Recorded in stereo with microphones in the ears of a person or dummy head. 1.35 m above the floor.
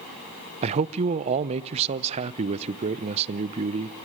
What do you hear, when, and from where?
0.6 s a man speaking: 35° right (ahead or behind), 0.5 m